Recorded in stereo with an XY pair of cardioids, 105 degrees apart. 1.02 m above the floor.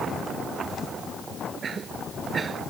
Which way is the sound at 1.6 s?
40° right.